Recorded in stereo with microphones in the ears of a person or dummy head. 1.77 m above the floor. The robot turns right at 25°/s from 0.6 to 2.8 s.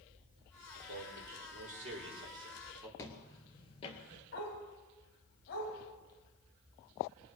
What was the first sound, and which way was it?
A man speaking, 65° right.